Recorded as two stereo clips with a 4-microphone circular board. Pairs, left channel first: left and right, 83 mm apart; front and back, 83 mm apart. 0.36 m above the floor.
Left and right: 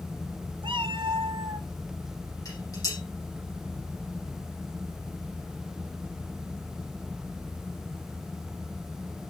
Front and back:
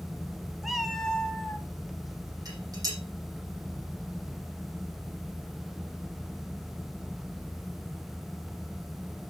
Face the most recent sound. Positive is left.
turn(degrees=140)